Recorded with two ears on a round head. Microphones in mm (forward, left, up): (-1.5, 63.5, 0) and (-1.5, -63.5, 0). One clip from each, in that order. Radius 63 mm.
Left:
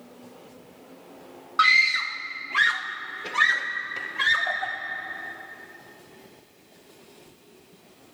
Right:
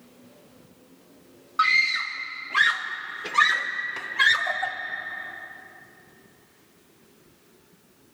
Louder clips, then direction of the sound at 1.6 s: Left 2 dB; 25° left (ahead or behind).